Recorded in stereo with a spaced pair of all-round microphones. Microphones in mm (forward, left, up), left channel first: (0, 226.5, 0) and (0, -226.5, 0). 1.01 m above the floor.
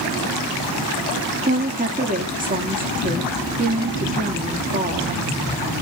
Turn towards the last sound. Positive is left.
turn(degrees=-20)  # may be behind; listen again after turning